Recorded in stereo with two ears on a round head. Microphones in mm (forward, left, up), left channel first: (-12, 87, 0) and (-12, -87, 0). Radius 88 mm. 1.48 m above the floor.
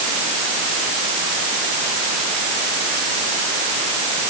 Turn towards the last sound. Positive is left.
No sound to turn to.